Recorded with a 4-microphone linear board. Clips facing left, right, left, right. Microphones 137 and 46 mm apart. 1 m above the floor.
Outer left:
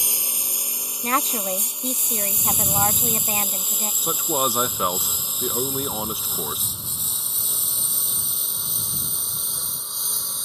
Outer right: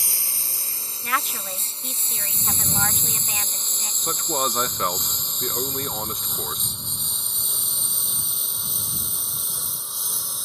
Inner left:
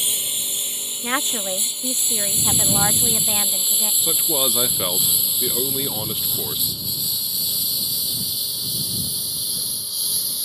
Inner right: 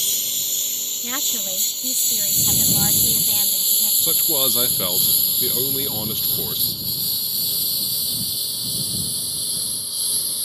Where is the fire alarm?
I don't hear a fire alarm.